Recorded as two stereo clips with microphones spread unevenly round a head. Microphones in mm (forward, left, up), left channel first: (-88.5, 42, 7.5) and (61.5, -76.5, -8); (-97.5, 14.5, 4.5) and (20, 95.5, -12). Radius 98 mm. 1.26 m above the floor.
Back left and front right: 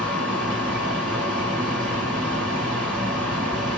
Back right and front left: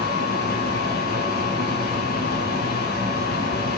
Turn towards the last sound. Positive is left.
turn(degrees=-130)